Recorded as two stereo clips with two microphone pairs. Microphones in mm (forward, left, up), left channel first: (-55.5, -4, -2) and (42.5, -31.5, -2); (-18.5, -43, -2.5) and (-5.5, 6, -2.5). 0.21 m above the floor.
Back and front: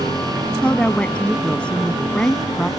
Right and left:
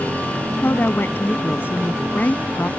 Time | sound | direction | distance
0.6 | a woman speaking | 120° right | ?